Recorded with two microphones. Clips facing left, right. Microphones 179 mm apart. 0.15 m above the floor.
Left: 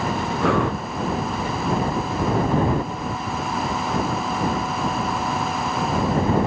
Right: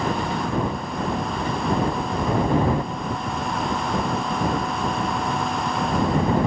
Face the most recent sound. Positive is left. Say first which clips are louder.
# left 4 dB
turn(degrees=75)  # may be behind; listen again after turning